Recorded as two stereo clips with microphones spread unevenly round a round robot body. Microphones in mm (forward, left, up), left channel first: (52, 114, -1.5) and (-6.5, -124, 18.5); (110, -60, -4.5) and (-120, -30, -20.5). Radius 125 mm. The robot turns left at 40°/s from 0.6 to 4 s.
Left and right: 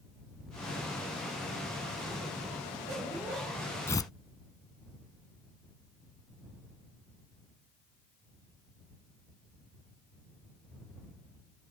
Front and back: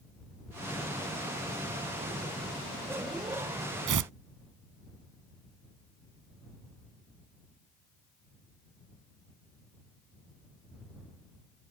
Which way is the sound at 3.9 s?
160° left.